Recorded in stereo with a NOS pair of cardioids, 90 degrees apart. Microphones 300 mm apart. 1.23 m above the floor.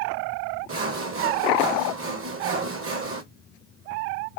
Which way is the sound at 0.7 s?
45° right.